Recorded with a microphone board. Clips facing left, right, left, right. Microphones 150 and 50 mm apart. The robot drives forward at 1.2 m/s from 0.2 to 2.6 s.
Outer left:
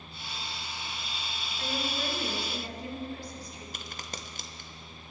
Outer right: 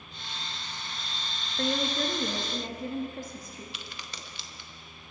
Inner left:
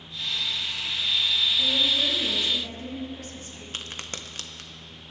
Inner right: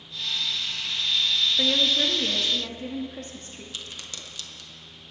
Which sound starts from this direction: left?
A crack, at 3.7 s.